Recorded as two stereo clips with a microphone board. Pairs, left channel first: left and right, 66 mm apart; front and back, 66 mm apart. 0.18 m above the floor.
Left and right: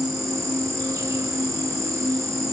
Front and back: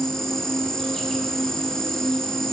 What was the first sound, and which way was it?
An insect, 80° right.